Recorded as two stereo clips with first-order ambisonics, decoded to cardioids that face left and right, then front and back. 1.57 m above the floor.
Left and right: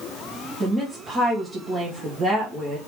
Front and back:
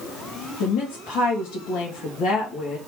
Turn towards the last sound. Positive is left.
turn(degrees=-25)